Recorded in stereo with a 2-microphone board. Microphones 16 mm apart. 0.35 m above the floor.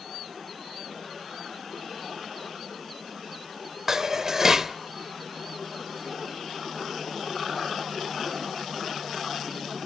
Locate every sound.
3.9 s dishes clattering: 25° right (ahead or behind), 0.8 m